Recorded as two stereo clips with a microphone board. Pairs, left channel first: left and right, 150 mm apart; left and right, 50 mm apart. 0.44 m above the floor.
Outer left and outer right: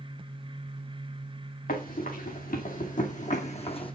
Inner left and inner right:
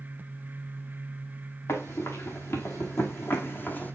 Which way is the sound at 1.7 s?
70° left (ahead or behind).